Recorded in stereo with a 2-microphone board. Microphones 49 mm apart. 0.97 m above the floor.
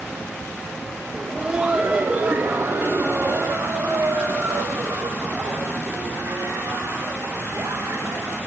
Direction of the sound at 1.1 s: 15° right (ahead or behind).